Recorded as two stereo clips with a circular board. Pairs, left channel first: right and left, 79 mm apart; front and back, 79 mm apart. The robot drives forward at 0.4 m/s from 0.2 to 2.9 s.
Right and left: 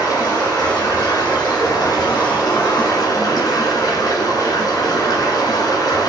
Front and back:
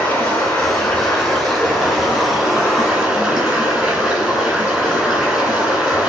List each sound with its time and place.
0.0 s running water: 70° right, 1.7 m; by 6.1 s 115° right, 1.7 m